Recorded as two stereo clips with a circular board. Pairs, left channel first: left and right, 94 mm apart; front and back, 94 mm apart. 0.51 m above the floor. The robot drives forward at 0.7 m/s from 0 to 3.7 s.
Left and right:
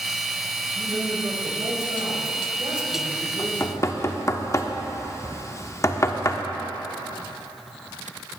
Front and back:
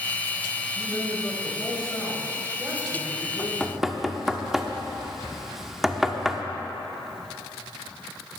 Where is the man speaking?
65° right, 2.5 m; by 3.9 s 120° right, 2.5 m.